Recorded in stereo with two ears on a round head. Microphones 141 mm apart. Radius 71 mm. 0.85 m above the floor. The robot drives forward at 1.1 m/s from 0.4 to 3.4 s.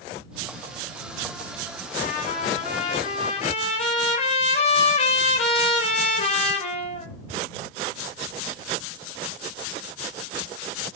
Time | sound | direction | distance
2.0 | a trumpet | 60° left (ahead or behind) | 3.5 m